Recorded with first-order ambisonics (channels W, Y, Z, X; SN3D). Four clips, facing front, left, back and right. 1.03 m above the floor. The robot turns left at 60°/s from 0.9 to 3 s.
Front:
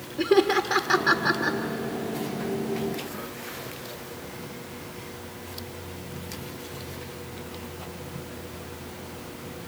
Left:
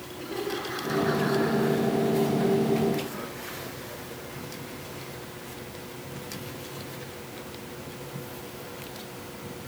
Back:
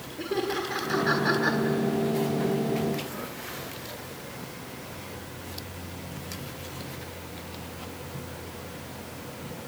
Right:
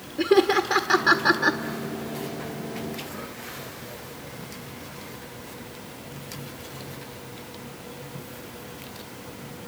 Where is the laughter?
60° right, 1.4 m; by 1.6 s 105° right, 1.4 m.